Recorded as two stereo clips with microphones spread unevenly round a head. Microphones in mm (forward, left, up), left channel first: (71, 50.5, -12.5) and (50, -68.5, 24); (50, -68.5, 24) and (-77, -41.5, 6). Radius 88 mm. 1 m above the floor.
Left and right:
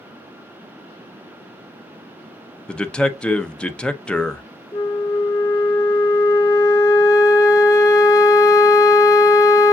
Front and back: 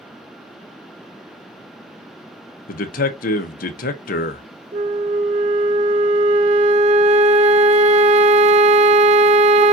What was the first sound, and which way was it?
A man speaking, 10° left.